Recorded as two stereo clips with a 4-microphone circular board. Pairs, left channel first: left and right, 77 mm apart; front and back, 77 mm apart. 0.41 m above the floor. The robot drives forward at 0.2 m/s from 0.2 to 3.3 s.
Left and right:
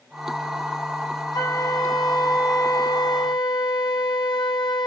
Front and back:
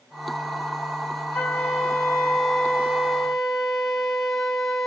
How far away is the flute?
About 1.3 m.